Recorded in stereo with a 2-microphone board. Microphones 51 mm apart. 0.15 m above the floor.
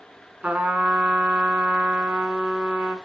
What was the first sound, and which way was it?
A trumpet, 30° right (ahead or behind).